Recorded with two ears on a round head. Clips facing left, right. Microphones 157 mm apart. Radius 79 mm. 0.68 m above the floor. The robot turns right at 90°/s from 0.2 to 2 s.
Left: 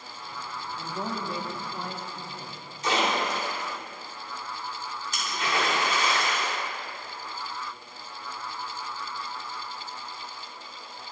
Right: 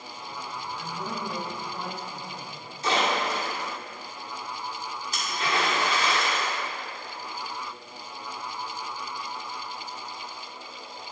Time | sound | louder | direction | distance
0.8 | a man speaking | left 3 dB | 95° left | 0.8 m
2.8 | a splash | right 1 dB | 30° right (ahead or behind) | 2 m